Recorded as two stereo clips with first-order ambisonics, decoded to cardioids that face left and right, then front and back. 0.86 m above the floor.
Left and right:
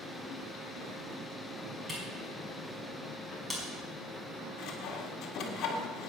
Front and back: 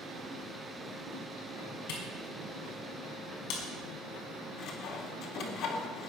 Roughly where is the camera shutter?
Ahead.